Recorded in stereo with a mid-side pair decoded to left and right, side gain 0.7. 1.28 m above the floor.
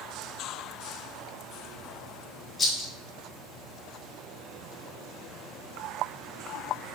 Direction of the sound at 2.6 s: 15° left.